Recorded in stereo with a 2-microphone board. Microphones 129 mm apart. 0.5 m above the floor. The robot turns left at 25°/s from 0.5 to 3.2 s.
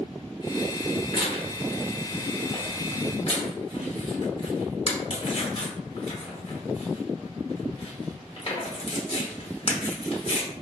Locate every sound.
1.1 s tearing paper: 35° left (ahead or behind), 1.2 m; by 10.5 s 45° left (ahead or behind), 1.2 m